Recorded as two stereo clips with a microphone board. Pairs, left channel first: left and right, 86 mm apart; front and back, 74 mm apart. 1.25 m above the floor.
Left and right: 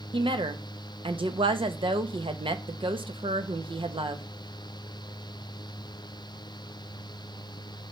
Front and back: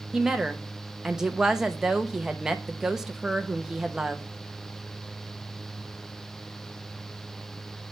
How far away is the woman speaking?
About 1.1 m.